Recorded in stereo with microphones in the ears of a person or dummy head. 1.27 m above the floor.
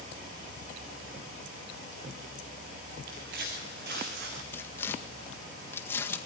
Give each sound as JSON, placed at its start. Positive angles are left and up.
{"t": 3.1, "sound": "footsteps", "side_deg": -60, "distance_m": 4.0}
{"t": 4.5, "sound": "tearing paper", "side_deg": 20, "distance_m": 1.8}